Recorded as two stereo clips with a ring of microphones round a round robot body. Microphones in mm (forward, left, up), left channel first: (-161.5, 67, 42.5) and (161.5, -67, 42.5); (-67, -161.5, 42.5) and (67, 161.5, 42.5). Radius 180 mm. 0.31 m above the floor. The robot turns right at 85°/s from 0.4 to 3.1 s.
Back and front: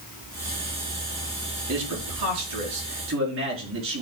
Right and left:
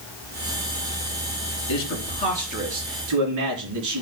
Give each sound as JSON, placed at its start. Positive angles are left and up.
{"t": 1.7, "sound": "a man speaking", "azimuth_deg": -90, "distance_m": 4.0}